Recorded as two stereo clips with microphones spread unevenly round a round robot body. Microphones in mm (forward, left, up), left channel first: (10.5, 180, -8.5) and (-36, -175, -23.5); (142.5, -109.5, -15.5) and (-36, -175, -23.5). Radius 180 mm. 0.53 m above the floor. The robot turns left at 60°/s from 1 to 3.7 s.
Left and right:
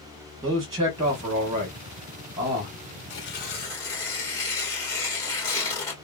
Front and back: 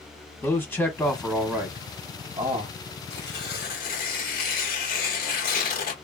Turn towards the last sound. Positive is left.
turn(degrees=0)